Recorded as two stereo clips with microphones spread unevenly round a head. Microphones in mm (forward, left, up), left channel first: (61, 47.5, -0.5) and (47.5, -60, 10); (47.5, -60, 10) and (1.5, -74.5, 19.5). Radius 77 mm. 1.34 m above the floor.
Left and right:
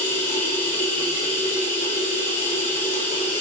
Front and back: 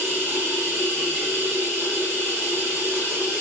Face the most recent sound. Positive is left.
turn(degrees=100)